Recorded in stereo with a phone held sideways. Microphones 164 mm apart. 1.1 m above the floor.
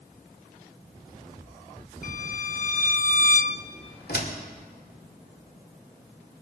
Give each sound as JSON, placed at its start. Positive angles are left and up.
{"t": 2.0, "sound": "a violin", "side_deg": 55, "distance_m": 0.6}
{"t": 4.1, "sound": "a door slam", "side_deg": 80, "distance_m": 2.0}